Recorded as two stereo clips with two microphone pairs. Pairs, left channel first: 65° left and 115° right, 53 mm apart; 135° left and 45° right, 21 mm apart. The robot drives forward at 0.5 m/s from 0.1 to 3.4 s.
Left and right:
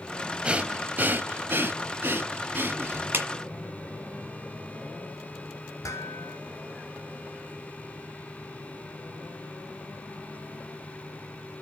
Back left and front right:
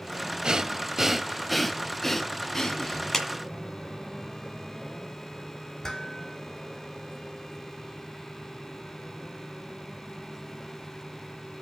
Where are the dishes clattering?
70° left, 3 m.